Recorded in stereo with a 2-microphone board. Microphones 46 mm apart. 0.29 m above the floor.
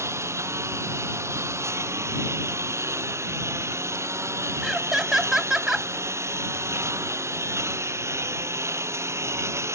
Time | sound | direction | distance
0.0 | a lawn mower | 70° right (ahead or behind) | ?
4.6 | laughter | 10° right (ahead or behind) | ?